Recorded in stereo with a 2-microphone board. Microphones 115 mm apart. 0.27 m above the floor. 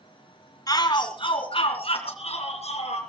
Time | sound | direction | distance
0.7 | a shout | 35° left (ahead or behind) | 2 m